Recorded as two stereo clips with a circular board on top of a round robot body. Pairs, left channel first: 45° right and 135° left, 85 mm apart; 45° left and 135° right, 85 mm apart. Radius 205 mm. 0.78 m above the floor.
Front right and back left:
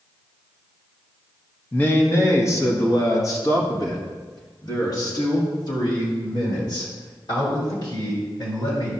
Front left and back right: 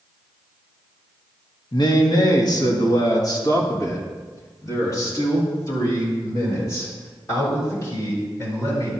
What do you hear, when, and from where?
1.7 s a man speaking: 25° left, 1.4 m; by 8.9 s 10° right, 5.5 m